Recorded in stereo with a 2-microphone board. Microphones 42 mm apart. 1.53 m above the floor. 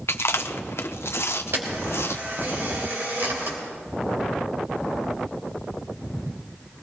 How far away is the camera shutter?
About 3.5 m.